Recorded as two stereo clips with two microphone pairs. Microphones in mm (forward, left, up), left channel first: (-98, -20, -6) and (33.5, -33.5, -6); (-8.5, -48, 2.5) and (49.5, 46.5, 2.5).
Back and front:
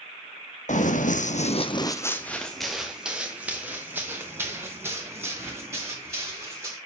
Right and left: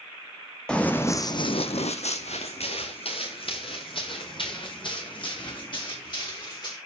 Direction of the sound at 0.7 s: 155° left.